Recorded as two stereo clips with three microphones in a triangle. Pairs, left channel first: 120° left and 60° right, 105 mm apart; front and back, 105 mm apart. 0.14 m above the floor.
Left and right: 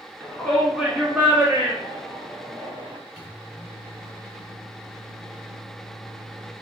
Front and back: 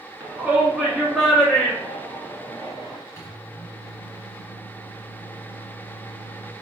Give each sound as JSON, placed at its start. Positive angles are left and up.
{"t": 0.2, "sound": "a shout", "azimuth_deg": 170, "distance_m": 1.1}
{"t": 3.2, "sound": "a microwave", "azimuth_deg": 20, "distance_m": 1.5}